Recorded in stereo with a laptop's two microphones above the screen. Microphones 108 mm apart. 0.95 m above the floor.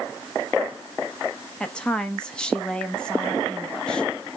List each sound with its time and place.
1.6 s a woman speaking: 10° left (ahead or behind), 1.1 m